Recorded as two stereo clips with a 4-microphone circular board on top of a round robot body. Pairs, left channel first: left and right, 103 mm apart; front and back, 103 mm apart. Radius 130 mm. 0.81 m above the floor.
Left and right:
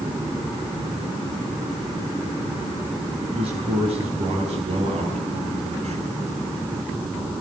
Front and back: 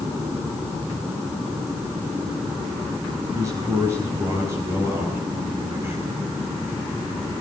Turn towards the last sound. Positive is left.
turn(degrees=-110)